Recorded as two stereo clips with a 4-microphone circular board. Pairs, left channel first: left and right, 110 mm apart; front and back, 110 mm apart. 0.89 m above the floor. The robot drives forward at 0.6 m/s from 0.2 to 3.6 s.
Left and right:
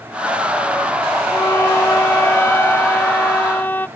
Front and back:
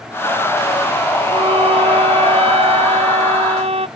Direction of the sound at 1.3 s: 150° left.